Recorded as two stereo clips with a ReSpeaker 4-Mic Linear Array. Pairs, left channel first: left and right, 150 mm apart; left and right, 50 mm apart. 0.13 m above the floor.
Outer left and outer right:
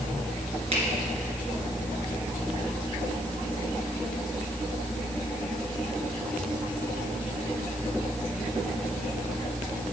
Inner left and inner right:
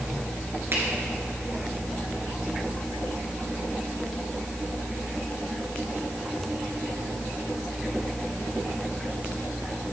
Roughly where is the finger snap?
Right.